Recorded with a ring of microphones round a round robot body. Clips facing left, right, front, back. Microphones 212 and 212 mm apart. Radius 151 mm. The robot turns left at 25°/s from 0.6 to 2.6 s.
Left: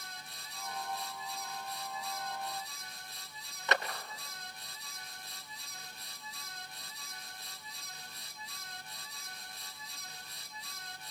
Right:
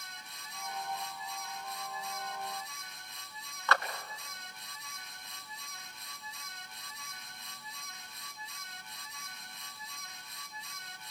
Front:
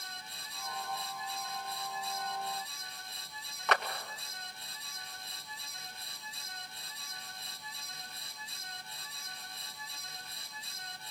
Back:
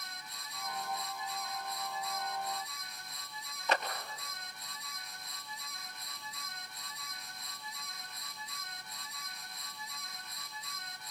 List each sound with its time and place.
3.7 s a clap: 20° left, 2.5 m